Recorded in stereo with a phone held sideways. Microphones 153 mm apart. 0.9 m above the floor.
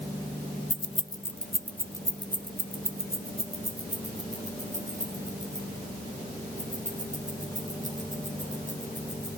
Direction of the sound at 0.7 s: 50° left (ahead or behind).